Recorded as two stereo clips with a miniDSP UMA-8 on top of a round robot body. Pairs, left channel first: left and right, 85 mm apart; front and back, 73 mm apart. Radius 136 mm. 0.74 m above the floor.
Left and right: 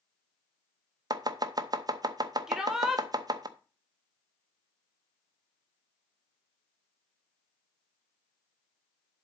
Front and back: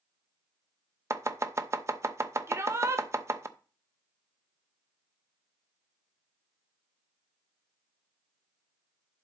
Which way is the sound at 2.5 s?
170° right.